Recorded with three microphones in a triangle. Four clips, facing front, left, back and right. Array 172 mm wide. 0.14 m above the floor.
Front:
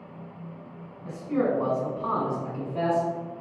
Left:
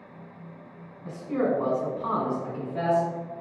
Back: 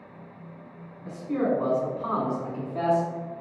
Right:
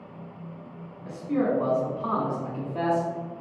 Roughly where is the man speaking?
Ahead left.